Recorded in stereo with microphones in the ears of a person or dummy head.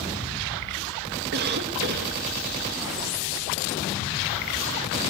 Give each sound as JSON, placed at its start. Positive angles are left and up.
{"t": 1.3, "sound": "a cough", "side_deg": -60, "distance_m": 2.0}